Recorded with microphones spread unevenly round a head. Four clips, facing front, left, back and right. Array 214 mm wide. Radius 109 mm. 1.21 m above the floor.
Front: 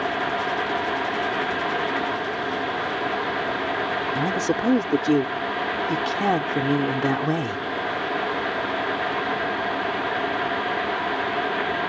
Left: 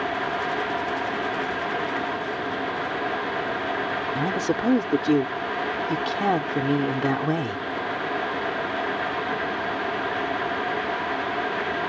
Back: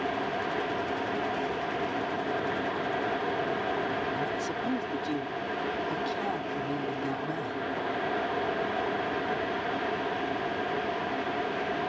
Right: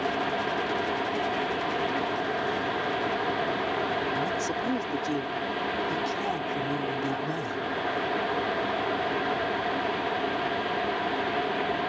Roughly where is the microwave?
I don't hear a microwave.